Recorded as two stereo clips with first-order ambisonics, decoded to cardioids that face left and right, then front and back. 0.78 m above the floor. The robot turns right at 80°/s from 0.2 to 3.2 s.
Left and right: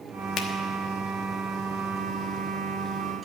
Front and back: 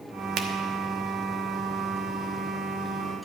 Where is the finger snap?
140° left, 1.2 m; by 0.5 s 150° left, 1.2 m.